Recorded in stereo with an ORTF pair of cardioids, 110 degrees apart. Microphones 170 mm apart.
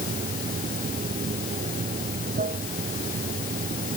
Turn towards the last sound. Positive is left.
turn(degrees=-55)